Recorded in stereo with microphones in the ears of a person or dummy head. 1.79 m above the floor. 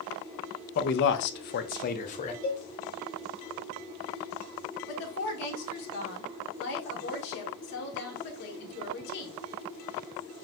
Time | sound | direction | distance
0.8 | a man speaking | 50° left (ahead or behind) | 0.6 m
2.4 | a cowbell | 25° left (ahead or behind) | 1.3 m
4.9 | a woman speaking | 55° left (ahead or behind) | 1.3 m